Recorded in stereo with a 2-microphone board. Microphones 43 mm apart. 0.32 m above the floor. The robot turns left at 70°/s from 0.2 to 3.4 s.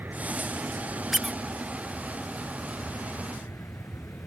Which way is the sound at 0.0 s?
50° right.